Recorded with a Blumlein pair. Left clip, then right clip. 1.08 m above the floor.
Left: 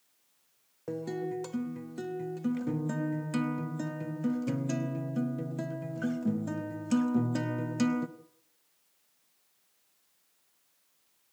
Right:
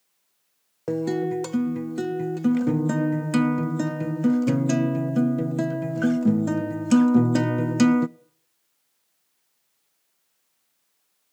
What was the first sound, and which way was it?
A guitar, 30° right.